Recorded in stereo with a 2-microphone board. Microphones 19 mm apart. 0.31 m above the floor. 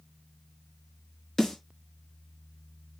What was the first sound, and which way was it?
A snare drum, 15° left (ahead or behind).